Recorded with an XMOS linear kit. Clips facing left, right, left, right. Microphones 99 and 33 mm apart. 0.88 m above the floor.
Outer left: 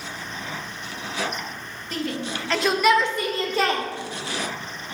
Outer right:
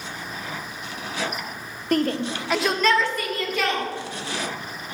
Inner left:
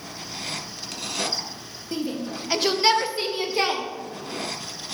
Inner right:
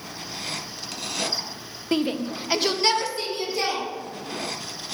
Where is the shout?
55° right (ahead or behind), 0.6 m; by 3.8 s 40° left (ahead or behind), 1.2 m.